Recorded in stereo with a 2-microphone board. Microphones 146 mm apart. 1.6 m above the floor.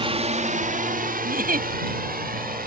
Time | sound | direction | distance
0.0 | a drone | 40° right (ahead or behind) | ?
1.2 | a giggle | 80° right | ?